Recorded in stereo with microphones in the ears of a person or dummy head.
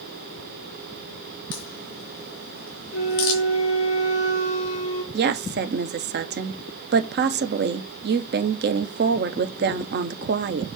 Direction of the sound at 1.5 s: 60° left (ahead or behind).